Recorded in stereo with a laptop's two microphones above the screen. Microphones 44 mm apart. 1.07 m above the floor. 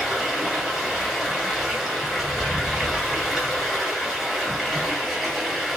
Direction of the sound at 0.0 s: Centre (ahead or behind).